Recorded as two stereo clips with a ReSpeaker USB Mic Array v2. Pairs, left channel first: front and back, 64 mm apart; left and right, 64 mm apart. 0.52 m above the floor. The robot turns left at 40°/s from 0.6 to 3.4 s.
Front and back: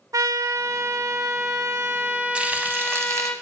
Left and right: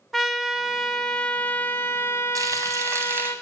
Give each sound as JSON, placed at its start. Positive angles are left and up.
{"t": 0.1, "sound": "a trumpet", "azimuth_deg": 180, "distance_m": 0.6}
{"t": 2.4, "sound": "frying", "azimuth_deg": -105, "distance_m": 0.8}